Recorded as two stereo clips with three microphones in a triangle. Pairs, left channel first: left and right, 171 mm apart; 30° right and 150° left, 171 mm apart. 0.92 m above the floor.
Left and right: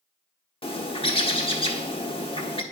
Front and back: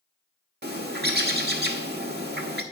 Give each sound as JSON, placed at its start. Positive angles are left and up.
{"t": 0.6, "sound": "a bird", "azimuth_deg": 145, "distance_m": 1.1}